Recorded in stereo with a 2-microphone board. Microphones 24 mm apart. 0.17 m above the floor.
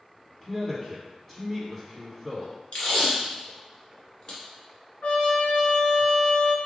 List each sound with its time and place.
0.4 s a man speaking: 20° left (ahead or behind), 1.4 m
2.7 s tape being pulled: 50° left (ahead or behind), 1.8 m
5.0 s a trumpet: 65° left (ahead or behind), 0.6 m